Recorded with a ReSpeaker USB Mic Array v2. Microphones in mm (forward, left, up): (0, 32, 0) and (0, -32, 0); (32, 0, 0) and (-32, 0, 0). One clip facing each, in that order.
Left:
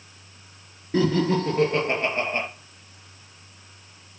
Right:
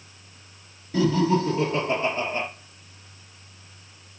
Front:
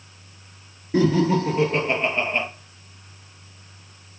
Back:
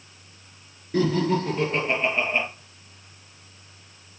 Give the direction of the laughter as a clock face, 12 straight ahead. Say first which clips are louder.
Even, front 3 dB; 10 o'clock.